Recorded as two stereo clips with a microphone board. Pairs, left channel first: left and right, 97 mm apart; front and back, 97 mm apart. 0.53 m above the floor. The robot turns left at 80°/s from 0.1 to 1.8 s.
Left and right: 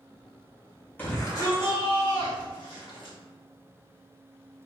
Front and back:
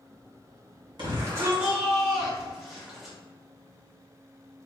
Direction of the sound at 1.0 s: 155° left.